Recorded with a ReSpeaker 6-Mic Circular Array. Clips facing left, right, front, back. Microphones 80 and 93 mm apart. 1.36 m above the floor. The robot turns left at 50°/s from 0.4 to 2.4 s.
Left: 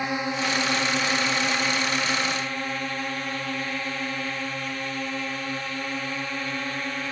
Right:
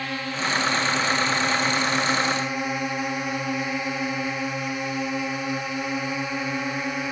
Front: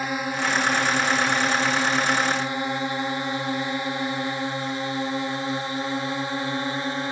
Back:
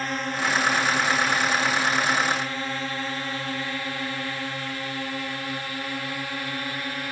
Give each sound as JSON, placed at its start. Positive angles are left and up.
{"t": 0.0, "sound": "a drone", "azimuth_deg": 60}